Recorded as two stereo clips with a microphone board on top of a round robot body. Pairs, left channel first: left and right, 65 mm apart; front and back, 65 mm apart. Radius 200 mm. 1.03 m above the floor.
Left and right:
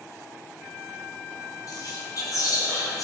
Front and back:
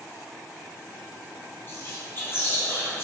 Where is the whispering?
55° left, 1.6 m.